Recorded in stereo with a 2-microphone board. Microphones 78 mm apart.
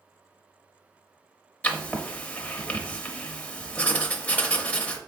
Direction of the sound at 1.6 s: 20° left (ahead or behind).